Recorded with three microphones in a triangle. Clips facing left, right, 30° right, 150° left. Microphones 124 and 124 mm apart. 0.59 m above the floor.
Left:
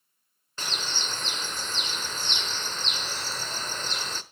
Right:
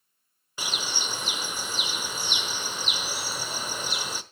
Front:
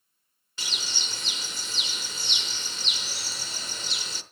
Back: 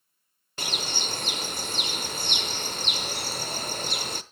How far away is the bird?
About 0.9 m.